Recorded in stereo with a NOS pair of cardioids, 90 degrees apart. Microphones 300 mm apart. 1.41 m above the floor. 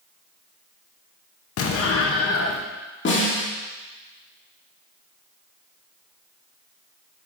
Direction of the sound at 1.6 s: 50° left.